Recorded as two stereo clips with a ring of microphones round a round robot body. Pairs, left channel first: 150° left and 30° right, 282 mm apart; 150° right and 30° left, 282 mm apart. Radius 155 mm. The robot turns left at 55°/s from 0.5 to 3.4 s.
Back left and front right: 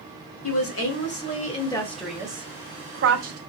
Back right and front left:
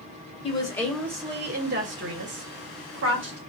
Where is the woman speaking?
145° left, 1.3 m; by 3.4 s 15° right, 1.3 m.